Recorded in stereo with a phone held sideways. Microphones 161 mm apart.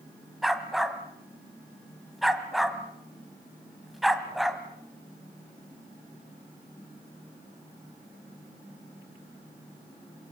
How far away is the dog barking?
About 1.8 m.